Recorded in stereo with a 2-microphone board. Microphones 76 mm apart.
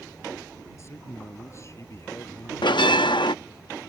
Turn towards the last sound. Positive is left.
turn(degrees=85)